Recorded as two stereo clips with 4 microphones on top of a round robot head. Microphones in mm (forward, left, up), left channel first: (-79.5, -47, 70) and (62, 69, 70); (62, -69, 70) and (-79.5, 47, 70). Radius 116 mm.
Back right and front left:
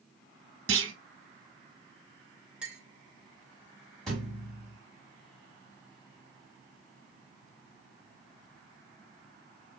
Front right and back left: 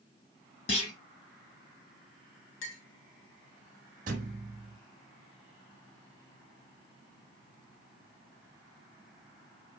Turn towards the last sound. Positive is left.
turn(degrees=135)